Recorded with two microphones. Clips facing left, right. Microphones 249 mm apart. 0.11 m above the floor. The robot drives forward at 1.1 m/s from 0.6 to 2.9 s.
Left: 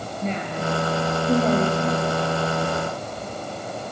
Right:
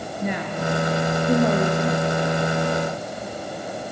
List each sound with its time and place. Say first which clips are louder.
0.2 s a woman speaking: right 1 dB; 15° right (ahead or behind), 1.9 m; by 2.2 s 10° right (ahead or behind), 3 m